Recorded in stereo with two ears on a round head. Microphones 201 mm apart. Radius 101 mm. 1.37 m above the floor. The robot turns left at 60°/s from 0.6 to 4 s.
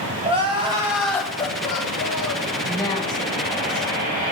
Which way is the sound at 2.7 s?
175° left.